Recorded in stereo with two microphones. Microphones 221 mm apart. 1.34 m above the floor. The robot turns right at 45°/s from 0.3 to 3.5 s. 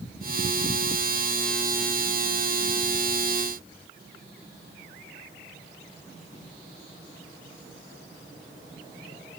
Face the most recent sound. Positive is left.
No sound to turn to.